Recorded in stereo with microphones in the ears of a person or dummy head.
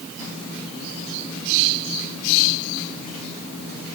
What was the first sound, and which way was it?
Only background noise.